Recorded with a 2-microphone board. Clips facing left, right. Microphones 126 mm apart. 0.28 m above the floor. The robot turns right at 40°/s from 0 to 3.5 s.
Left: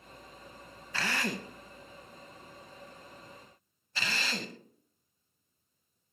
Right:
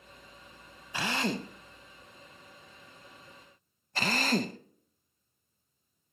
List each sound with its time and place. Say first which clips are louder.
0.9 s a drill: right 3 dB; 15° right (ahead or behind), 0.5 m; by 4.6 s 50° right (ahead or behind), 0.5 m